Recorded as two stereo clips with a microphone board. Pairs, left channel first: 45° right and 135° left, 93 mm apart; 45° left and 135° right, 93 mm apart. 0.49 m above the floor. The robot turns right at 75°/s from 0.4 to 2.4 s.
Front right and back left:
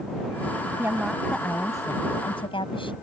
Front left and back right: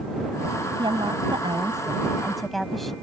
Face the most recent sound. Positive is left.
turn(degrees=-45)